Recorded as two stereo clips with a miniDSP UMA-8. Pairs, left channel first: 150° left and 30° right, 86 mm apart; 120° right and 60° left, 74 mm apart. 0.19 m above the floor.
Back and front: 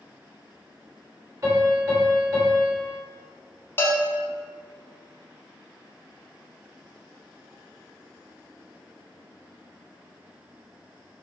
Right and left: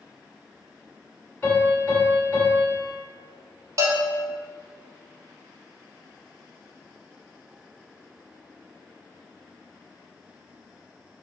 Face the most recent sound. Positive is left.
turn(degrees=90)